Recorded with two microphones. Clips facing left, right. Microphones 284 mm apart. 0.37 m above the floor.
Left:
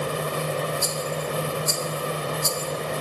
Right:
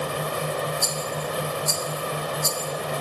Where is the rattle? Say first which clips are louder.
Left 1 dB; 20° left (ahead or behind), 1.4 m.